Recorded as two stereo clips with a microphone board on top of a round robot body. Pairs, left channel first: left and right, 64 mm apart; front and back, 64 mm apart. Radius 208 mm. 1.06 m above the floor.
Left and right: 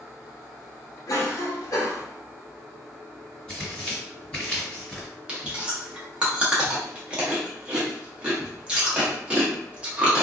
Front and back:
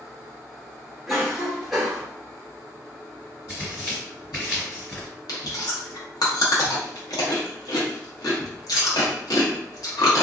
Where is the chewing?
15° right, 1.0 m.